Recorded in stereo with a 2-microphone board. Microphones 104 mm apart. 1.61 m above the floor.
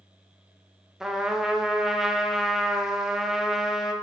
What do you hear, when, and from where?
1.0 s a trumpet: 5° right (ahead or behind), 1.0 m